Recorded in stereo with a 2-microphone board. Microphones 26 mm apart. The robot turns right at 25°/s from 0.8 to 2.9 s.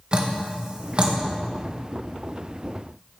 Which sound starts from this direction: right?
Dripping, at 0.1 s.